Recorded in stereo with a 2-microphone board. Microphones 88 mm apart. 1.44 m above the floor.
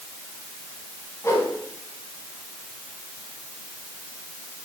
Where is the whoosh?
30° left (ahead or behind), 2.5 m.